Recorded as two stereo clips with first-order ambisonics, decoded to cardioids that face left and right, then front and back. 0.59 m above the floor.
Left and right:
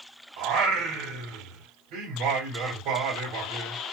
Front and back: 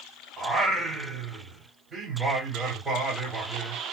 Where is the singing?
105° right, 3 m.